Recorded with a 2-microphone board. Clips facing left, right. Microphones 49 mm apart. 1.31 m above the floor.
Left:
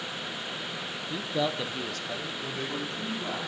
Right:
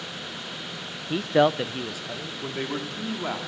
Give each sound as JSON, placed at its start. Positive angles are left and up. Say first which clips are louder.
{"t": 1.1, "sound": "a man speaking", "louder": "right 9 dB", "side_deg": -75, "distance_m": 0.6}
{"t": 2.4, "sound": "a man speaking", "louder": "right 7 dB", "side_deg": -40, "distance_m": 3.0}